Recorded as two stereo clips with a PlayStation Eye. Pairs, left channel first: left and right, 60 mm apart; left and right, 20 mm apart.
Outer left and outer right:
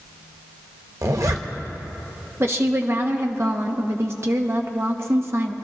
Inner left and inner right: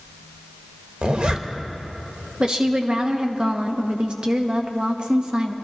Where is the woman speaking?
45° right (ahead or behind), 1.1 m.